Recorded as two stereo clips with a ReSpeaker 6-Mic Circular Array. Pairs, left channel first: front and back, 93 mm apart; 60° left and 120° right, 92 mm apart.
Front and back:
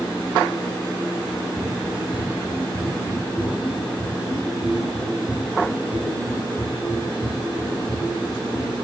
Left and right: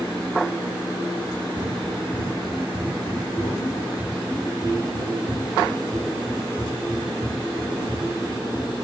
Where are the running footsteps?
120° right, 7 m; by 8.7 s 130° right, 11 m.